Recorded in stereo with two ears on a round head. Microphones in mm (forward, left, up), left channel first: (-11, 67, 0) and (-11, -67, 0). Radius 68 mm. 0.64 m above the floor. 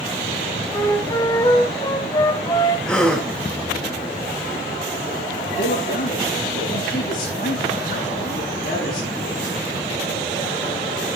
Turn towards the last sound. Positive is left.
turn(degrees=65)  # may be behind; listen again after turning